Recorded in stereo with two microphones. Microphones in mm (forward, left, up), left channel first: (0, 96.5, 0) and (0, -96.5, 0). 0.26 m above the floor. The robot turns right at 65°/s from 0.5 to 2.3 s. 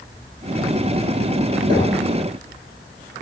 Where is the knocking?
20° left (ahead or behind), 3.5 m; by 2.0 s 45° left (ahead or behind), 3.5 m.